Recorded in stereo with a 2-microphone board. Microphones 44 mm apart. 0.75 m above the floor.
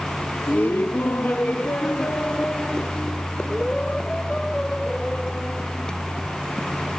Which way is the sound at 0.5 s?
55° left (ahead or behind).